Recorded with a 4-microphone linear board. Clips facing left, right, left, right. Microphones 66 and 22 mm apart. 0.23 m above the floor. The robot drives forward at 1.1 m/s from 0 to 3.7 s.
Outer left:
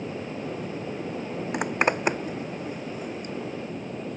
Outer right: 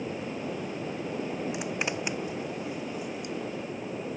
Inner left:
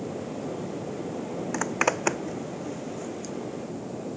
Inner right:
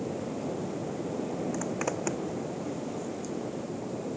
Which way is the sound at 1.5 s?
50° left (ahead or behind).